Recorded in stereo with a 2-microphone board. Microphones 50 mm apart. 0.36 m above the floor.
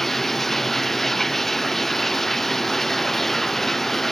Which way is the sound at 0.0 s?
5° left (ahead or behind).